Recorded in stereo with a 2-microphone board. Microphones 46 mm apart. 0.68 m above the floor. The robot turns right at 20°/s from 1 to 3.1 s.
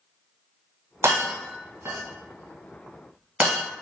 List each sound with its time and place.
1.0 s breaking glass: 70° right (ahead or behind), 1.5 m; by 3.6 s 30° right (ahead or behind), 1.5 m